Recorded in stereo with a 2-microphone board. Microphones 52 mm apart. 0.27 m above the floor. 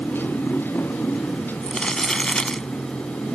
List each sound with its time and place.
0.0 s a motorcycle: 45° left (ahead or behind); by 3.4 s 35° left (ahead or behind)
1.6 s crumpling: 15° left (ahead or behind)